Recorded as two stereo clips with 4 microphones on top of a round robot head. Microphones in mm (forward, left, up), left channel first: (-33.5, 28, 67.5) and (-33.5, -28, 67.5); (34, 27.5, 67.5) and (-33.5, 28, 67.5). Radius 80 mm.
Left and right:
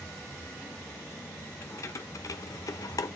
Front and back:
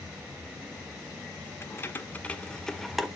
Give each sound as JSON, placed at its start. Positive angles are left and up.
{"t": 1.6, "sound": "keys jangling", "azimuth_deg": 50, "distance_m": 1.5}